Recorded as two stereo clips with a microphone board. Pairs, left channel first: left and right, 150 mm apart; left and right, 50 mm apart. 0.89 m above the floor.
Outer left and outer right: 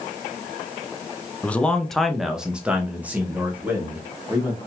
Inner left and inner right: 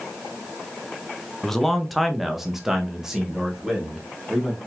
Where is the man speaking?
10° left (ahead or behind), 0.6 m; by 4.7 s 10° right (ahead or behind), 1.9 m.